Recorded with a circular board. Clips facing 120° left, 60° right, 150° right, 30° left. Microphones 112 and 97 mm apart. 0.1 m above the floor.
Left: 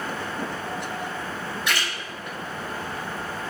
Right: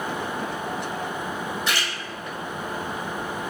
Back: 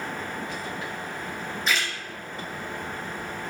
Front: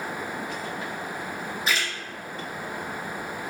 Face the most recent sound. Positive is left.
turn(degrees=-50)